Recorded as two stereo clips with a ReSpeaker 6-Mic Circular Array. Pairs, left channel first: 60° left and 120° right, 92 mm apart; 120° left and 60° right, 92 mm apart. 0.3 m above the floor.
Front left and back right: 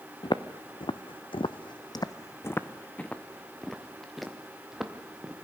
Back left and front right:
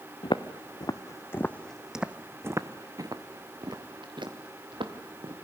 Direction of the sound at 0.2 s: 95° left.